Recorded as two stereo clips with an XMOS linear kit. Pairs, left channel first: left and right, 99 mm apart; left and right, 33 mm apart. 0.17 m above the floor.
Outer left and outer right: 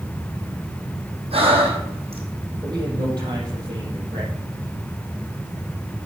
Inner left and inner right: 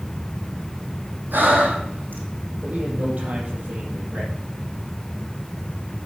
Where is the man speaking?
45° right (ahead or behind), 6 m.